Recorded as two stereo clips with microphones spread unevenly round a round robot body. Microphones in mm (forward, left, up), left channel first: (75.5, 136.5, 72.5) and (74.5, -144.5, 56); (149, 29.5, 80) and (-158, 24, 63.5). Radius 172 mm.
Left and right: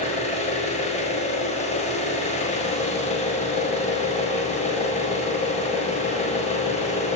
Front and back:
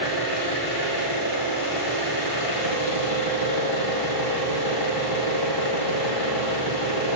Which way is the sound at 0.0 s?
20° left.